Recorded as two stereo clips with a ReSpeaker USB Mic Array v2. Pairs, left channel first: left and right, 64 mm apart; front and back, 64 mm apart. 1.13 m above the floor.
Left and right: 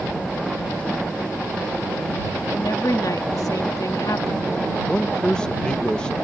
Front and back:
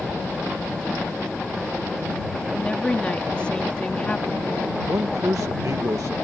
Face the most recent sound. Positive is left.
turn(degrees=165)